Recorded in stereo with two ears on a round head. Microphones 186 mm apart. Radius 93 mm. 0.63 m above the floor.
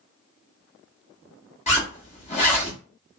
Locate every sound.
1.7 s a zipper: 35° left (ahead or behind), 1.3 m